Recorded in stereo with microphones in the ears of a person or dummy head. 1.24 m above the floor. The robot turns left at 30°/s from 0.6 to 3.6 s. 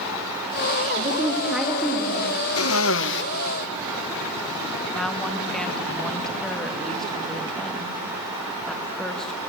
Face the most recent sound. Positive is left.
turn(degrees=0)  # may be behind; listen again after turning